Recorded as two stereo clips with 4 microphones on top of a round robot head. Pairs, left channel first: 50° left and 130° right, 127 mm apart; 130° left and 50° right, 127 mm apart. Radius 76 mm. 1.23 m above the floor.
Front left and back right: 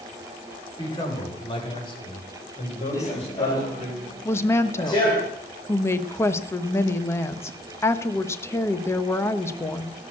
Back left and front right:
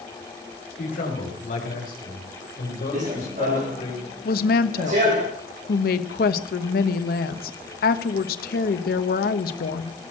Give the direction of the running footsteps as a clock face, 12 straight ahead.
1 o'clock.